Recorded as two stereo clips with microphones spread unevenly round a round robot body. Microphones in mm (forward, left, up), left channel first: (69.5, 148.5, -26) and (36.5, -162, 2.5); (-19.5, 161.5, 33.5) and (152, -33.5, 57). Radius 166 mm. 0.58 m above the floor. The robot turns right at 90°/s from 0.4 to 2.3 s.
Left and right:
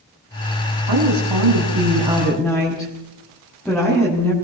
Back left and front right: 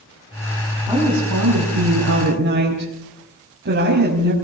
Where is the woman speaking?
130° right, 5 m; by 4.3 s 5° right, 5 m.